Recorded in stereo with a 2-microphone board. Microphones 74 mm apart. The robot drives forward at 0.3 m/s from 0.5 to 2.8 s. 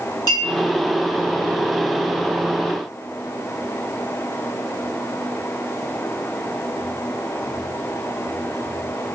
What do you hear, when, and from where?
0.3 s a clink: 75° left (ahead or behind), 1.8 m